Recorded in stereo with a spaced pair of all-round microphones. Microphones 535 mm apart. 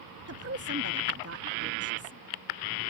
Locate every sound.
0.3 s a woman speaking: 25° right (ahead or behind)